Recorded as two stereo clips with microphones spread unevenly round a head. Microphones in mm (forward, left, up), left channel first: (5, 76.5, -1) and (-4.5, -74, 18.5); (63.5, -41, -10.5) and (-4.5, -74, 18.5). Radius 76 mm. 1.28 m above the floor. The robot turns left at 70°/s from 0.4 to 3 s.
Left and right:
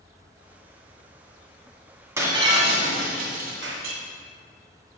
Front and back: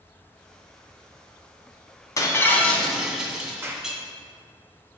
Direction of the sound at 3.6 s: 100° right.